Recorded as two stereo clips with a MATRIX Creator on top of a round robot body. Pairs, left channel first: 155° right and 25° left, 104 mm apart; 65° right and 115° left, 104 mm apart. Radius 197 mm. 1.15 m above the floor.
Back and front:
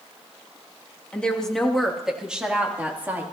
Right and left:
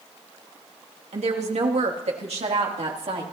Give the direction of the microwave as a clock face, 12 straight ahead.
I don't hear a microwave.